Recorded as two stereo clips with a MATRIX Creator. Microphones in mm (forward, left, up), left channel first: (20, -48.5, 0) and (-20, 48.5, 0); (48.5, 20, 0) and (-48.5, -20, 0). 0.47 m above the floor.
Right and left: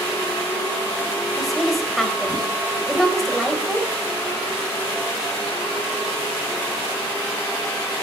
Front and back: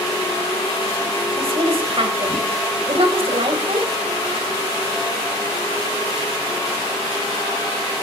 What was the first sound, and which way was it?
A woman speaking, 155° right.